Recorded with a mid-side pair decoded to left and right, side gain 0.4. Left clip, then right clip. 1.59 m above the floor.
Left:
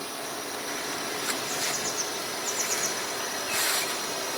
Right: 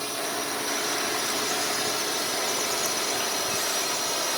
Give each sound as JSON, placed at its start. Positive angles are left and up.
{"t": 0.0, "sound": "a drone", "azimuth_deg": -50}